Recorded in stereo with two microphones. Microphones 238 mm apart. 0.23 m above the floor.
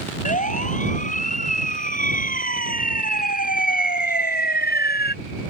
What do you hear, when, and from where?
0.2 s a siren: 30° left (ahead or behind); by 5.2 s 45° left (ahead or behind)